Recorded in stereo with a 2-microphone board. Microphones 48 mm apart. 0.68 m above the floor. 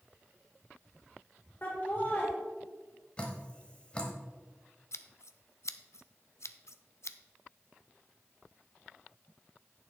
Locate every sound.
1.6 s laughter: 40° left (ahead or behind), 3 m
3.2 s dripping: 20° left (ahead or behind), 1.5 m
4.9 s scissors: 70° left (ahead or behind), 0.5 m